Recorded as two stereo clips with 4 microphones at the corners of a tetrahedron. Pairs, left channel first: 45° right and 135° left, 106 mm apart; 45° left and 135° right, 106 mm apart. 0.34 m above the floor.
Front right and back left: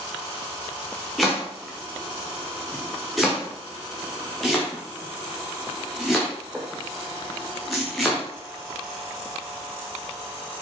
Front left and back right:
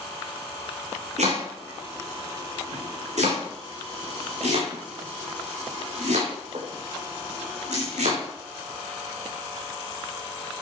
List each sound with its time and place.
1.2 s chopping: 135° right, 4.5 m